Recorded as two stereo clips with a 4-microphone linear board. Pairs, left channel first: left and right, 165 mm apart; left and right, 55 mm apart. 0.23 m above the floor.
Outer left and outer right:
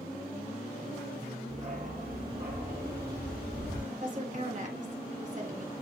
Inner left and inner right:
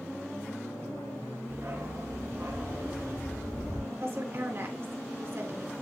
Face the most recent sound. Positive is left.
turn(degrees=-50)  # may be behind; listen again after turning